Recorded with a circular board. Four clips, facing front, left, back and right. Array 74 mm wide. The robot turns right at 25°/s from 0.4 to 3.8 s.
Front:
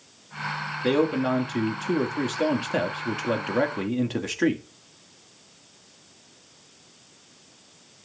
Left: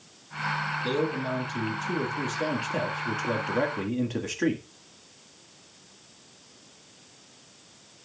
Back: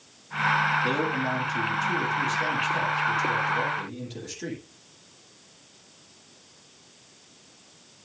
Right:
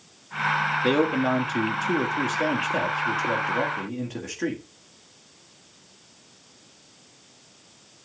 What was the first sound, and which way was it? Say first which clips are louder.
A man speaking: right 7 dB, front 4 dB; 65° right.